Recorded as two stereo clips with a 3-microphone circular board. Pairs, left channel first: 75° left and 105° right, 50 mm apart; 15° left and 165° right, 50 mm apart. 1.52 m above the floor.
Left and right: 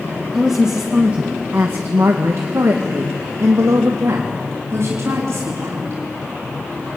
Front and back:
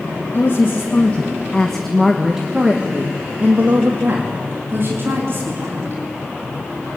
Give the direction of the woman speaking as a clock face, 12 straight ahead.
1 o'clock.